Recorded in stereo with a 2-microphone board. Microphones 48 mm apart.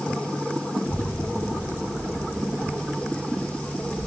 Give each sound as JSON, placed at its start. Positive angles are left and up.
{"t": 0.8, "sound": "a child speaking", "side_deg": 45, "distance_m": 3.0}